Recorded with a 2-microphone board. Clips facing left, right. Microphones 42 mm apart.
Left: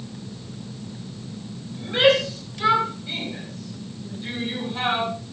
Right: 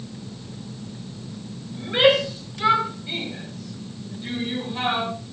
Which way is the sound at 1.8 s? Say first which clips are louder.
Even; 15° right (ahead or behind).